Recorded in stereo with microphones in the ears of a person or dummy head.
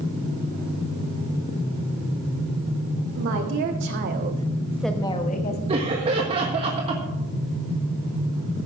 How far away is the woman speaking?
About 3 m.